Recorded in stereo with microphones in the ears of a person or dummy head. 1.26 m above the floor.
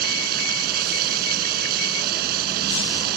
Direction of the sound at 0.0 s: 50° right (ahead or behind).